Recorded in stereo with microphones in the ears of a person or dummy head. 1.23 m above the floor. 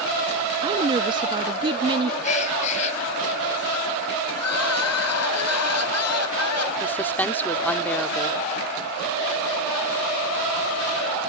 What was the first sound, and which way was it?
A woman speaking, 25° right (ahead or behind).